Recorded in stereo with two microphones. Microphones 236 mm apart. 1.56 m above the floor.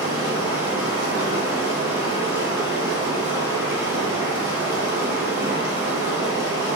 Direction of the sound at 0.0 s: 10° right (ahead or behind).